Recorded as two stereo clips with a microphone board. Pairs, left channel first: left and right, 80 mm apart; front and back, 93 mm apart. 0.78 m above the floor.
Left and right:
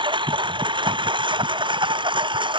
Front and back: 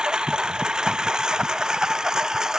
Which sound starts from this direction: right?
A lawn mower, at 0.0 s.